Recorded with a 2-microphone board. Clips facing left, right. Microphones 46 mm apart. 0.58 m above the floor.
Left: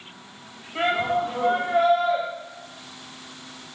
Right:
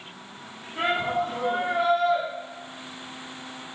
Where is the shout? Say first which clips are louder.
Left 2 dB; 75° left (ahead or behind), 3.5 m.